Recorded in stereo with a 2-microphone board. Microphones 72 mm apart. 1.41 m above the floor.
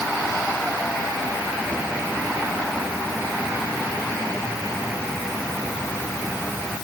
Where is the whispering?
No whispering in this recording.